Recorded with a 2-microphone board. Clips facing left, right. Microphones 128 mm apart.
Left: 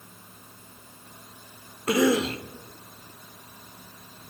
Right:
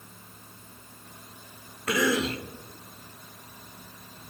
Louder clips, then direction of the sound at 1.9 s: Left 4 dB; 30° left (ahead or behind).